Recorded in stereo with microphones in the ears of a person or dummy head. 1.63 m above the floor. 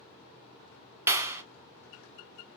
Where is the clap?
15° right (ahead or behind), 0.7 m.